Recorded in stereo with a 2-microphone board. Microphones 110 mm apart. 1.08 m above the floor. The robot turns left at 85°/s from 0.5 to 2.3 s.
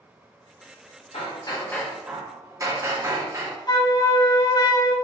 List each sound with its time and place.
1.1 s hammering: 70° left, 0.9 m; by 3.6 s 30° right, 0.9 m
3.7 s a flute: 40° left (ahead or behind), 0.5 m